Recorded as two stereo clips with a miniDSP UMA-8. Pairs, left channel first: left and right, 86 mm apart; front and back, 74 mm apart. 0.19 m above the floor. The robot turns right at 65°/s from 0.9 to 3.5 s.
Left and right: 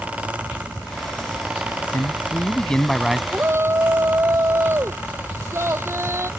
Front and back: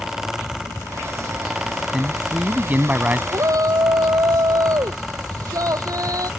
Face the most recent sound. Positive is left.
turn(degrees=-145)